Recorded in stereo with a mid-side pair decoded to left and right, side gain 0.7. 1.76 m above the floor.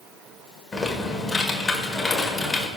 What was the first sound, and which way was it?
Typing on a keyboard, 15° left.